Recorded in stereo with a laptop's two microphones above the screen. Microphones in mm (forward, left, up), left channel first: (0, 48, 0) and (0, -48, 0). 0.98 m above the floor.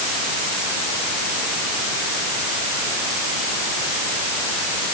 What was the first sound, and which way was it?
Only background noise.